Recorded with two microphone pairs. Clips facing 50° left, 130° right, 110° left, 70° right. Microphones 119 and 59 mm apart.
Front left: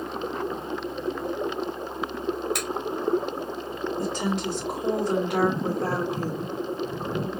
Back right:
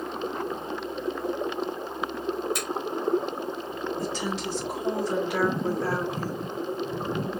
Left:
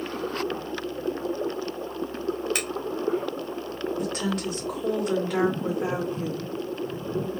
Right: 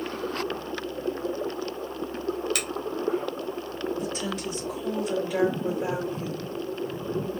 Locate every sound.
2.5 s a finger snap: 55° left, 2 m
4.0 s a woman speaking: 85° left, 2.5 m